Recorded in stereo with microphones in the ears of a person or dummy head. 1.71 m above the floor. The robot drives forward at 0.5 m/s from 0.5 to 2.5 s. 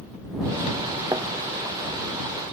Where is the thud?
15° right (ahead or behind).